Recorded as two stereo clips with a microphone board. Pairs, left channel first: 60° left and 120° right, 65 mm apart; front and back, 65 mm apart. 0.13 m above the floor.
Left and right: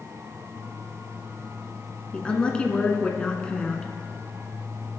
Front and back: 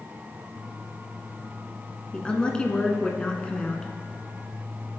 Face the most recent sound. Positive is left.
turn(degrees=30)